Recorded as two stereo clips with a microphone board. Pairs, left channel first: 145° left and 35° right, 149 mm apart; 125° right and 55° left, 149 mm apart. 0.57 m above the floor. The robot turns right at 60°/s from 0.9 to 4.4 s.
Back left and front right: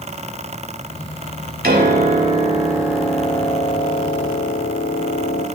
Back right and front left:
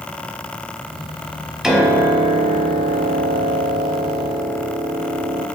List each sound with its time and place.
1.6 s a piano: 30° right, 1.0 m; by 5.5 s 135° left, 1.0 m